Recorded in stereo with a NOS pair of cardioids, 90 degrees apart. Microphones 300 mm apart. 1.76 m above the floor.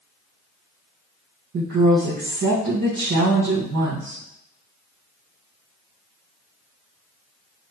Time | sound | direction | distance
1.5 | a woman speaking | 50° right | 1.7 m